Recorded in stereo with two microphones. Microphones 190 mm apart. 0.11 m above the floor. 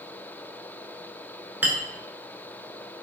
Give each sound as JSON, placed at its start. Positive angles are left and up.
{"t": 1.6, "sound": "a clink", "side_deg": -10, "distance_m": 0.7}